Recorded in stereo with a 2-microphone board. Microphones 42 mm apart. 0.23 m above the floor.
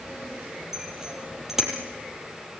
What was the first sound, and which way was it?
A bicycle bell, 10° right (ahead or behind).